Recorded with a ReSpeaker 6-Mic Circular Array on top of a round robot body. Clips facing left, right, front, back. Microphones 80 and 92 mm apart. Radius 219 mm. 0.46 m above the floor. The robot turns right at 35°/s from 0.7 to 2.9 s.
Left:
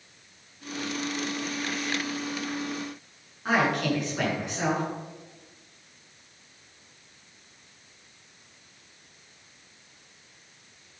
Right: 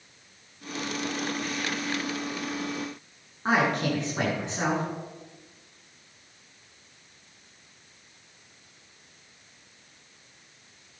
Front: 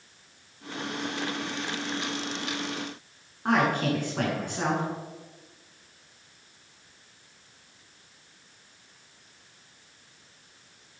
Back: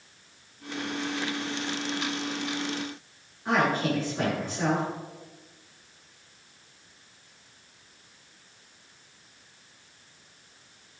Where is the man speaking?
30° right, 8.5 m.